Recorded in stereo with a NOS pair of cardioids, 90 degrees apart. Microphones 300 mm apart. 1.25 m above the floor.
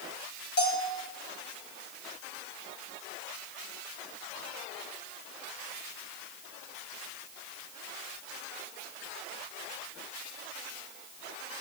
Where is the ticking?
I don't hear ticking.